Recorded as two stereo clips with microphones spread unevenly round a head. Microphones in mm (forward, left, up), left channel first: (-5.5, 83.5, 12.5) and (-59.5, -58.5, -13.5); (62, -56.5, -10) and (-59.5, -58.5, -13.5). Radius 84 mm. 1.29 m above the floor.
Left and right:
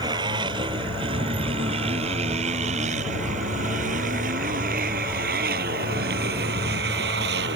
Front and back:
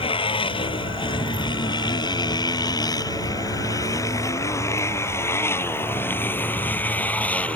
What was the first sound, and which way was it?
A motorcycle, 45° right.